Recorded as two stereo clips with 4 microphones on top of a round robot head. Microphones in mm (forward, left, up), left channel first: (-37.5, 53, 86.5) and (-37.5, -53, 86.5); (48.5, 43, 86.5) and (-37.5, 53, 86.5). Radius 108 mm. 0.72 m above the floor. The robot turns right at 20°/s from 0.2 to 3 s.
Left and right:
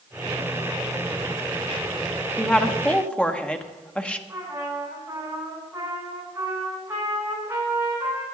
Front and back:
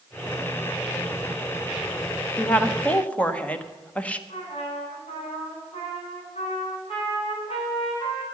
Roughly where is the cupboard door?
No cupboard door in this recording.